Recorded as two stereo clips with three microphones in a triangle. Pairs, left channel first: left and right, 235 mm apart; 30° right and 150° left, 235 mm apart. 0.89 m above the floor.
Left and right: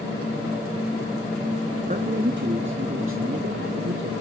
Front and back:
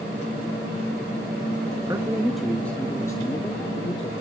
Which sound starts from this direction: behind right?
A man speaking, at 1.8 s.